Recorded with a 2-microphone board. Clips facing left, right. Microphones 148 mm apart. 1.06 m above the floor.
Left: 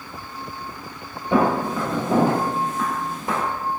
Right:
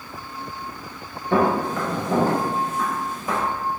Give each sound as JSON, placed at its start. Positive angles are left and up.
{"t": 1.3, "sound": "footsteps", "side_deg": 10, "distance_m": 1.1}